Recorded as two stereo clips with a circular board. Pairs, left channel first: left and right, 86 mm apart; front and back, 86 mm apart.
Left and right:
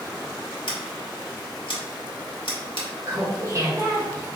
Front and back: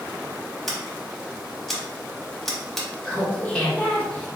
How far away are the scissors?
About 0.9 m.